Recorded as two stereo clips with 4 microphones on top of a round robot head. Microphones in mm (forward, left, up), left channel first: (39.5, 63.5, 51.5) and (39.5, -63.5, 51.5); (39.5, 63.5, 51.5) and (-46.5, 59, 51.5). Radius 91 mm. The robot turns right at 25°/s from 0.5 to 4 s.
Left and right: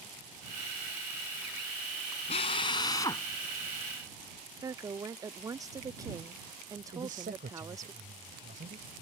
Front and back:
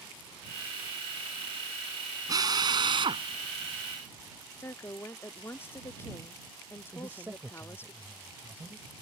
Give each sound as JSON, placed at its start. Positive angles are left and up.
{"t": 2.3, "sound": "a drill", "azimuth_deg": 140}
{"t": 4.6, "sound": "a woman speaking", "azimuth_deg": -45}
{"t": 6.9, "sound": "a man speaking", "azimuth_deg": -105}